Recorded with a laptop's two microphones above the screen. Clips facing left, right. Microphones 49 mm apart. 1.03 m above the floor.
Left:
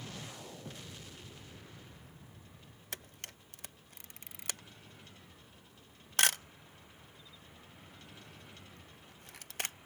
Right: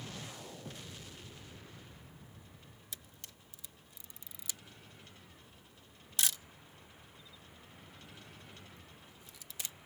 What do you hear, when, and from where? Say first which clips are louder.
2.9 s a camera shutter: left 9 dB; 55° left (ahead or behind)